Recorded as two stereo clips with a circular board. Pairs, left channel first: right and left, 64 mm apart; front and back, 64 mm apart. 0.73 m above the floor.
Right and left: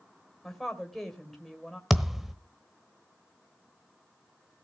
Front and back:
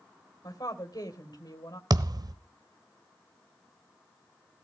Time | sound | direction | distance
0.4 | a woman speaking | 5° right | 2.5 m
1.9 | a thud | straight behind | 1.0 m